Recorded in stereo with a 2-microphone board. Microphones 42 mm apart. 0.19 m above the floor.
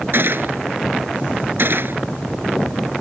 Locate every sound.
0.1 s a gunshot: 60° right (ahead or behind)